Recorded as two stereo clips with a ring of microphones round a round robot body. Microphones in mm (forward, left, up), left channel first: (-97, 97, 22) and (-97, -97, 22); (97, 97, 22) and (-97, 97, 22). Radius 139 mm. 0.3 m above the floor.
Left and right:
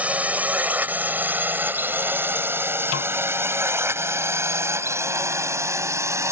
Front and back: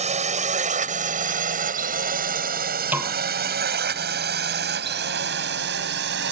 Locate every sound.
0.0 s a drone: 165° right
2.9 s a snare drum: 100° left